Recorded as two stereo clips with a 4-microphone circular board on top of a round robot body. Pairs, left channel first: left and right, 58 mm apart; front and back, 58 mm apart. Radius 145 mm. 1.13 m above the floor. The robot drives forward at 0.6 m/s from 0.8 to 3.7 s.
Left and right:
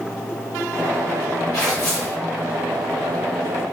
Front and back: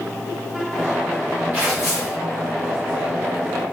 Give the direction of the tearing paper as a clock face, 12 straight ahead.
8 o'clock.